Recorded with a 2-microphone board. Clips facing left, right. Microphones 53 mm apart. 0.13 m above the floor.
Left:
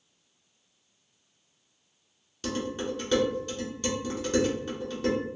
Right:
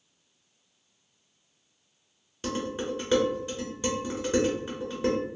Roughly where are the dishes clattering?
Centre.